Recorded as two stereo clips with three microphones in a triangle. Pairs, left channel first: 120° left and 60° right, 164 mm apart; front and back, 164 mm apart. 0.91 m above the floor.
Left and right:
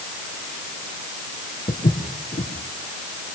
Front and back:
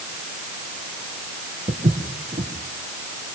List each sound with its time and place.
1.7 s footsteps: 140° left, 4 m